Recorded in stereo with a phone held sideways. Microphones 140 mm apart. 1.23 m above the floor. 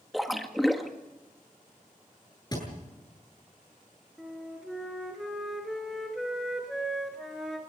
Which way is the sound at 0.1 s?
Centre (ahead or behind).